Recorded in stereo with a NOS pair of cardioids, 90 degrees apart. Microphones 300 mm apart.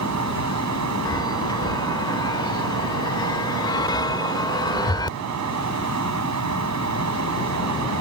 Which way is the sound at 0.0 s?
70° right.